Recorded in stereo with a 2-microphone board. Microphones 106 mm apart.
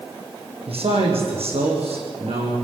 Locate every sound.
0.7 s a man speaking: 75° right (ahead or behind), 6.5 m; by 2.5 s 80° right, 8.5 m